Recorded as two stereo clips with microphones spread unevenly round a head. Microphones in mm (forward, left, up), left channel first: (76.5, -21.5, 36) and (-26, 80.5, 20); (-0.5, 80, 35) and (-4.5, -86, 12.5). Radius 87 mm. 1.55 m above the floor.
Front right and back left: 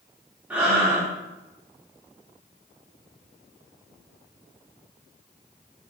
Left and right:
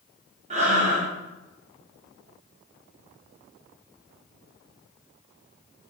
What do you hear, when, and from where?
0.5 s breathing: 140° right, 3.5 m